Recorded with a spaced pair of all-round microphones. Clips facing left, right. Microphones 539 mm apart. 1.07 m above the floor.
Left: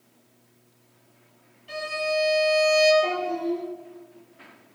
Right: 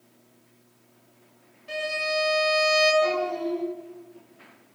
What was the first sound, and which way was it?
A violin, 65° right (ahead or behind).